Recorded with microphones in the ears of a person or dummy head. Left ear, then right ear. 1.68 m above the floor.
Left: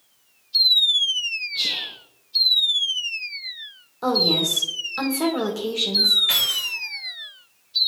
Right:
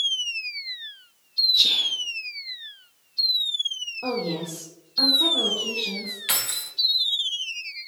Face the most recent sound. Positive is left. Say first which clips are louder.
# left 7 dB
turn(degrees=-30)  # may be behind; listen again after turning